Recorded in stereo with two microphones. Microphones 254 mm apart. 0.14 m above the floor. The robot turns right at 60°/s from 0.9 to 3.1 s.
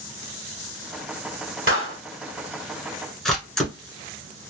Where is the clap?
55° right (ahead or behind), 2 m; by 2.0 s 45° right (ahead or behind), 2 m.